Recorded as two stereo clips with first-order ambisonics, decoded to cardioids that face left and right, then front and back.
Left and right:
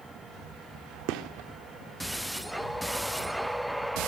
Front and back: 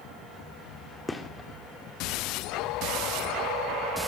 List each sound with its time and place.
1.1 s a gunshot: 80° right, 2 m